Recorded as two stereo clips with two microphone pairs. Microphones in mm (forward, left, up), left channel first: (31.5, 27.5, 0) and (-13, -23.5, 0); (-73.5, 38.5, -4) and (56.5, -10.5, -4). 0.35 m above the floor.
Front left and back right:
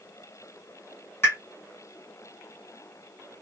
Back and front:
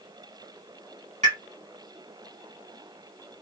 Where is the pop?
Straight ahead, 1.8 m.